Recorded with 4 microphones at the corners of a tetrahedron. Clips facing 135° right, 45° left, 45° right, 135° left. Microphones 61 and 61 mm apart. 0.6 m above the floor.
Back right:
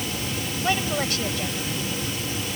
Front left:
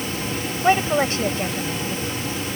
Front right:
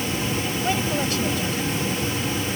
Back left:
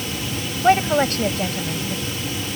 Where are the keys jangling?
No keys jangling in this recording.